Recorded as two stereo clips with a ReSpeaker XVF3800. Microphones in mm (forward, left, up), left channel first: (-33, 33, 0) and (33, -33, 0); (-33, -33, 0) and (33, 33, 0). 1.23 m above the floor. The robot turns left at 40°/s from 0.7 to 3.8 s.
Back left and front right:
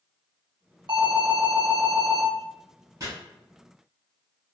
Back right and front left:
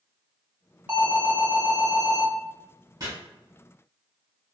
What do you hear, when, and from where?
0.9 s an alarm: 25° right, 1.0 m; by 2.2 s 80° right, 1.0 m
3.0 s chopping: 5° left, 1.4 m; by 3.1 s straight ahead, 1.4 m